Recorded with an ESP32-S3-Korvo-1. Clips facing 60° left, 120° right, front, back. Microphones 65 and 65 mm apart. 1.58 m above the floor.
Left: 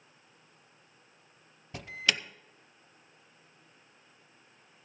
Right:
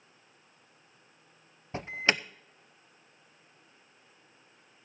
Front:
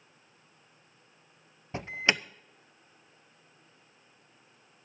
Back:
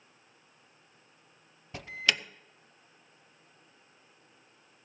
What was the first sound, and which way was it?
An alarm, 65° right.